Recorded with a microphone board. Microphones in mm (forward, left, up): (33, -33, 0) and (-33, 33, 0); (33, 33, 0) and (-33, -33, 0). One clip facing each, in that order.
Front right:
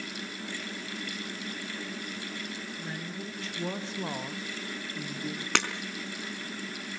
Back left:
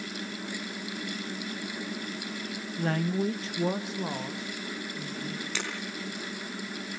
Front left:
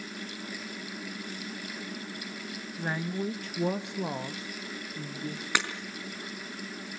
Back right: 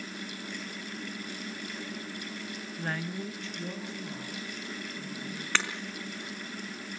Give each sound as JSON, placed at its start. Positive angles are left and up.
{"t": 2.8, "sound": "a woman speaking", "azimuth_deg": 130, "distance_m": 1.2}
{"t": 5.5, "sound": "breaking glass", "azimuth_deg": -30, "distance_m": 4.0}